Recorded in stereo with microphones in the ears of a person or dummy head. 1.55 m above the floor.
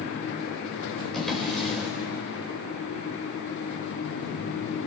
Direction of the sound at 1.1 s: Centre (ahead or behind).